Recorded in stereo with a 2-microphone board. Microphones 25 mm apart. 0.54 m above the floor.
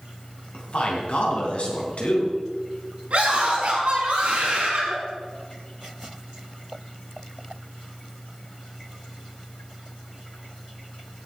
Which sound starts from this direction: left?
A man speaking, at 0.5 s.